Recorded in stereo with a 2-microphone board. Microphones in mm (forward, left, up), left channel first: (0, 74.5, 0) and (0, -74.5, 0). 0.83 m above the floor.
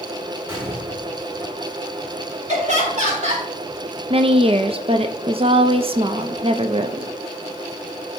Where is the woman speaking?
40° right (ahead or behind), 0.7 m.